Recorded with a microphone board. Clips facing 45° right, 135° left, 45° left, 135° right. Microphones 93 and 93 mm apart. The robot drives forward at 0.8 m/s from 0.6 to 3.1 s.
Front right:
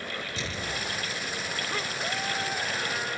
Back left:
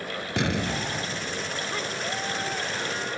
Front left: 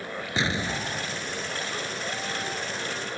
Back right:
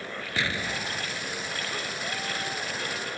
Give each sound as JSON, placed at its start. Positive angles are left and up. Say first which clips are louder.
{"t": 0.4, "sound": "an explosion", "louder": "back left 11 dB, front left 3 dB", "azimuth_deg": 115}